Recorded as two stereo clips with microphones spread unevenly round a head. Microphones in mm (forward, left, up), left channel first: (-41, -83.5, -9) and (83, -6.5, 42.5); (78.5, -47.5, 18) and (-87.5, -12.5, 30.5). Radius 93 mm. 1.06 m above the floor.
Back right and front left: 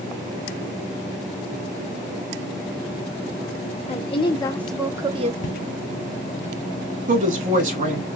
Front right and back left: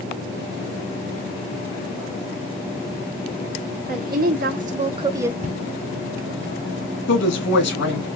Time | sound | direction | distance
3.9 | a woman speaking | 165° right | 1.0 m
5.4 | footsteps | 155° right | 1.6 m
7.1 | a woman speaking | 5° right | 2.5 m